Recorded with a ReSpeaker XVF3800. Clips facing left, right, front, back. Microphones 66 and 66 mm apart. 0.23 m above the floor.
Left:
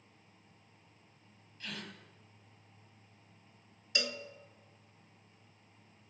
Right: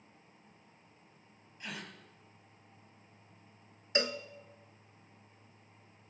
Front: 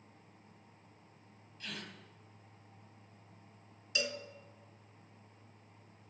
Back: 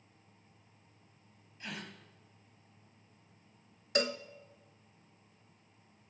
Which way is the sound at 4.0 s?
140° right.